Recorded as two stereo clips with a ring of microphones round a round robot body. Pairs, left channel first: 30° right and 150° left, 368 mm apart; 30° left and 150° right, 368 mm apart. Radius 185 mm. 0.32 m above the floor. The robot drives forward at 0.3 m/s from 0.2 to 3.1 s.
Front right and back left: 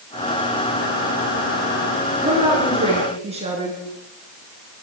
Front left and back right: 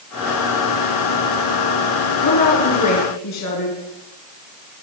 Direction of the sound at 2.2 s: 75° left.